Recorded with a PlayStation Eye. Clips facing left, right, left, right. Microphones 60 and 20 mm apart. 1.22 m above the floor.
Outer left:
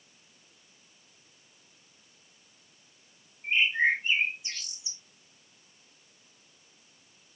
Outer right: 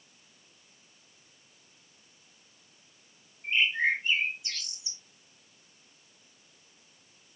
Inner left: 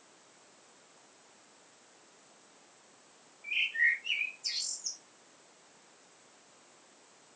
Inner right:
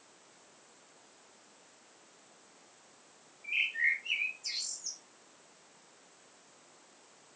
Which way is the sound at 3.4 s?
20° left (ahead or behind).